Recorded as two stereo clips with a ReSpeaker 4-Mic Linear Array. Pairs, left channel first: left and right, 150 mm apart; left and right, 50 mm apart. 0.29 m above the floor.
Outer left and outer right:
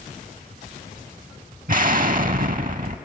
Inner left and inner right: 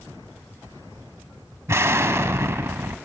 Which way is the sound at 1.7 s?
65° right (ahead or behind).